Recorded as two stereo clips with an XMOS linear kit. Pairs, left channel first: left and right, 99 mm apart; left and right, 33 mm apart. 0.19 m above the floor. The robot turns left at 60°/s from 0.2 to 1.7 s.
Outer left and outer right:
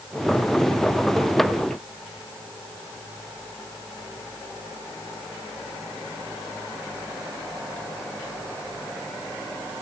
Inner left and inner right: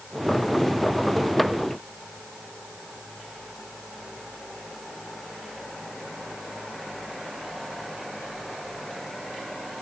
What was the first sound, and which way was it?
Only background noise.